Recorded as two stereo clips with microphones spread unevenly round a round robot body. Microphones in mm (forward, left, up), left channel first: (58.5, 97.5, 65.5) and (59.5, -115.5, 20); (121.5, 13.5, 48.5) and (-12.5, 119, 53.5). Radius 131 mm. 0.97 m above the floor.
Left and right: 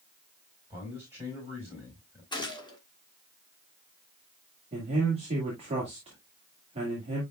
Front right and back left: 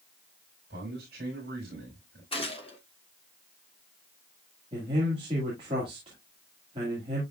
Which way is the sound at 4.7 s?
155° right.